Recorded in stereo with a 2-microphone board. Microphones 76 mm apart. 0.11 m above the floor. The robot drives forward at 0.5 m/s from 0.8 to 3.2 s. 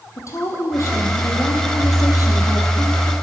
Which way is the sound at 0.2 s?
45° left (ahead or behind).